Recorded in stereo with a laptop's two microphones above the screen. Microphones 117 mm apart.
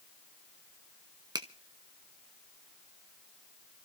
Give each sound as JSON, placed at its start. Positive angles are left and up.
{"t": 1.4, "sound": "a finger snap", "side_deg": -35, "distance_m": 0.9}